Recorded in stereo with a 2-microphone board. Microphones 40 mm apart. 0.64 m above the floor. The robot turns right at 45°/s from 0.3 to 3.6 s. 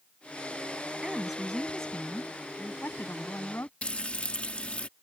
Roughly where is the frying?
Left.